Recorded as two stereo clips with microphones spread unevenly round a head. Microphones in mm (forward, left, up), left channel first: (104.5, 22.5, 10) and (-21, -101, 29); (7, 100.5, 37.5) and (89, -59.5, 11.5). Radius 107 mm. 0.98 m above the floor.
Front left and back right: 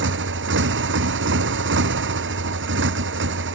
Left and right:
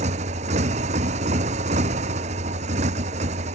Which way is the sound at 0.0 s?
125° right.